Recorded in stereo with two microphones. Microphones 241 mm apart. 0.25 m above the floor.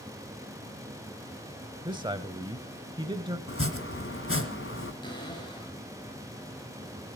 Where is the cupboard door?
20° left (ahead or behind), 5.5 m.